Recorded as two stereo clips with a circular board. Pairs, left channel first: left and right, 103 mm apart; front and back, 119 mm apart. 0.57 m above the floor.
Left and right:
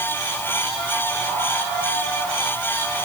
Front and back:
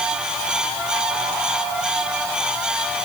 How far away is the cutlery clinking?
I don't hear cutlery clinking.